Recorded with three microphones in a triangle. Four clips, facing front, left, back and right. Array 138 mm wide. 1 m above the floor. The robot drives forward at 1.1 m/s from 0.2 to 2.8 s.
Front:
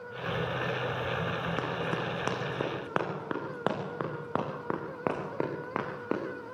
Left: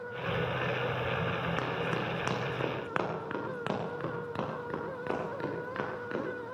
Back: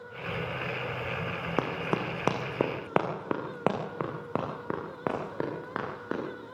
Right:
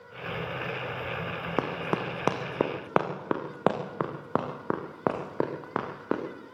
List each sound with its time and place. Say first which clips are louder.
1.6 s running footsteps: right 3 dB, back 2 dB; 120° right, 3.5 m; by 6.2 s 80° right, 7 m